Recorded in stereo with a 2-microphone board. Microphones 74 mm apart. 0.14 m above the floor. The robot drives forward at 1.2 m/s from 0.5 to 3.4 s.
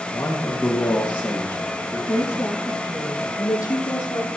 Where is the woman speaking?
35° left (ahead or behind), 4 m; by 4.3 s 50° left (ahead or behind), 2.5 m.